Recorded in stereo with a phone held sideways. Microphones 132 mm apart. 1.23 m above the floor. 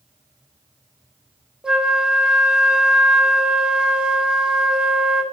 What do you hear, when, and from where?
1.6 s a flute: 5° right (ahead or behind), 0.5 m